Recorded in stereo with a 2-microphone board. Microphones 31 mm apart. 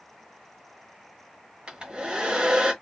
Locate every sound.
1.7 s a hair dryer: 30° right (ahead or behind), 1.1 m